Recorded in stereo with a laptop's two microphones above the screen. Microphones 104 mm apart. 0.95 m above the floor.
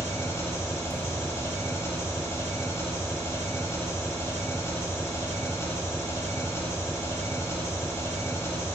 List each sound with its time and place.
0.0 s an engine running: 25° left (ahead or behind), 1.2 m